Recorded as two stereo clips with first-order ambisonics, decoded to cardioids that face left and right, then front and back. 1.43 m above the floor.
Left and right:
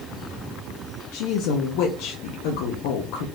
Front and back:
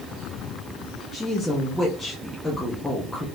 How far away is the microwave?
I don't hear a microwave.